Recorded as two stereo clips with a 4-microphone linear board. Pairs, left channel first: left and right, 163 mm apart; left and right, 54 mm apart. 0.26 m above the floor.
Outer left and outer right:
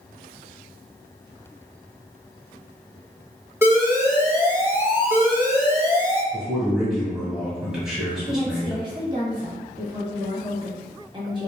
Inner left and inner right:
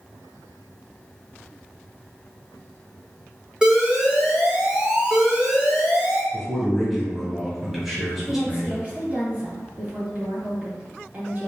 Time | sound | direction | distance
3.6 | an alarm | 15° right (ahead or behind) | 0.8 m
6.3 | a man speaking | 5° right (ahead or behind) | 1.4 m
8.3 | a woman speaking | 30° right (ahead or behind) | 1.3 m